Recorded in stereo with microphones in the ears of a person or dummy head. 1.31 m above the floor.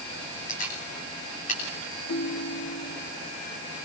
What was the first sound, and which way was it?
A camera shutter, 40° left (ahead or behind).